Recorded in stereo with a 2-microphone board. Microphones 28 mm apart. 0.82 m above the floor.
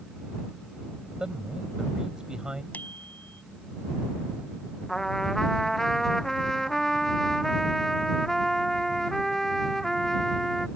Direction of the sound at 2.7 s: 70° left (ahead or behind).